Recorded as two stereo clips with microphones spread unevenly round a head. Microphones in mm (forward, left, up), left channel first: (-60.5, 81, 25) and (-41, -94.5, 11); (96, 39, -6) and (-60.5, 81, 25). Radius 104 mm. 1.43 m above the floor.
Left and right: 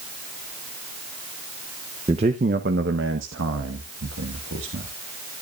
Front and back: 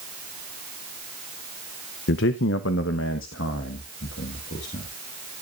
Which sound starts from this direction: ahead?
A man speaking, at 2.1 s.